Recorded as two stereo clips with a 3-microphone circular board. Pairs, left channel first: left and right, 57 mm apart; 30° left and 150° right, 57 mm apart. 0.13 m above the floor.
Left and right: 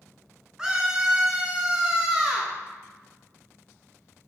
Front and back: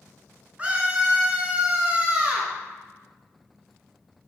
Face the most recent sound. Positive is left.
turn(degrees=-150)